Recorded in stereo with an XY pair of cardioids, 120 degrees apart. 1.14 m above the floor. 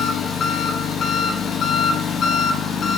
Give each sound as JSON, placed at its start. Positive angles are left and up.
{"t": 0.0, "sound": "an engine running", "azimuth_deg": 45, "distance_m": 1.0}